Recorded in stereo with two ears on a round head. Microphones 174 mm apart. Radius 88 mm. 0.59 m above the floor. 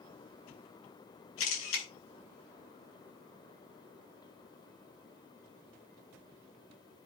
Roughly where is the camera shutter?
Left.